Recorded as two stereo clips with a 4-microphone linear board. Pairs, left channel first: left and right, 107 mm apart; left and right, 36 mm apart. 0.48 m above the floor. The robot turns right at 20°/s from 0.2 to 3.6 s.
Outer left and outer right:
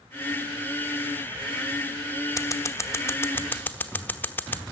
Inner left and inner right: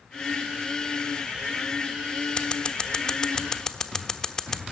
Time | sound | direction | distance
2.4 | scissors | 30° left (ahead or behind) | 1.0 m